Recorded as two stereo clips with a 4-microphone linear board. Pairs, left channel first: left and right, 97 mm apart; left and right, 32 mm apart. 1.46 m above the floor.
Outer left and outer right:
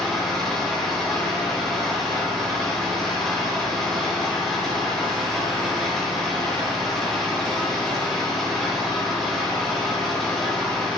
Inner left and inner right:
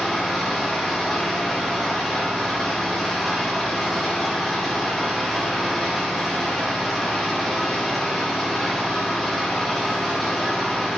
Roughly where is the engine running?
Centre.